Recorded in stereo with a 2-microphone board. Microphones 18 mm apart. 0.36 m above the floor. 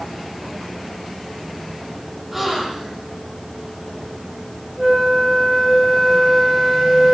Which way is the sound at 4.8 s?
15° right (ahead or behind).